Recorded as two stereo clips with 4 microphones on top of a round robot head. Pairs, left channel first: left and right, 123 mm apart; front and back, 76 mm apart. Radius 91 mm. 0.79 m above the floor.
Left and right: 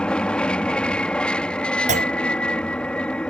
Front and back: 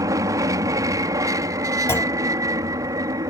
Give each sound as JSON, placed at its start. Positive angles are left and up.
{"t": 0.0, "sound": "an aircraft", "azimuth_deg": 170}
{"t": 1.9, "sound": "a clunk", "azimuth_deg": -65}